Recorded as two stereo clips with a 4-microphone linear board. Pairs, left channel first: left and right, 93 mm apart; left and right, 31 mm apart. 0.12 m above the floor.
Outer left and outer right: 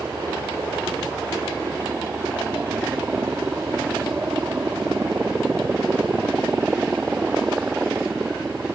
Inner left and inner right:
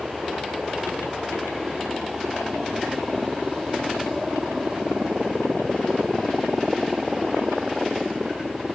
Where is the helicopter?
30° right (ahead or behind); by 8.7 s 15° right (ahead or behind).